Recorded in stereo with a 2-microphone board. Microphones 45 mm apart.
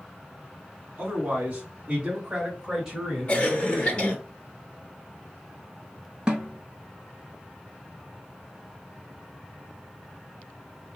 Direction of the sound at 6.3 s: 20° right (ahead or behind).